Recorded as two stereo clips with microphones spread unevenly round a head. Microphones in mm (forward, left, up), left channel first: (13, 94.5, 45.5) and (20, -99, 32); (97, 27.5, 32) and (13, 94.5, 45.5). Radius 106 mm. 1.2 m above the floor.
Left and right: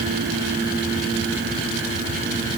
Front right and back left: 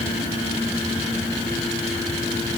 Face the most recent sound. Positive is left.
No sound to turn to.